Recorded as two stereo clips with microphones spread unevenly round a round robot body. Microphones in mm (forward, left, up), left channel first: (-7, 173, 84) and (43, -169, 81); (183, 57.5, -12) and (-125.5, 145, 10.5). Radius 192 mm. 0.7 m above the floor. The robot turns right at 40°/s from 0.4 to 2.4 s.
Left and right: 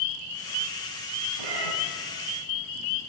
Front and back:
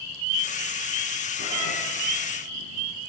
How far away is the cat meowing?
About 2.5 m.